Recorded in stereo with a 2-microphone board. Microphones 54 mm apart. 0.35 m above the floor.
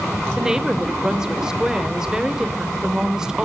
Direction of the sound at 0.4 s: 10° right (ahead or behind).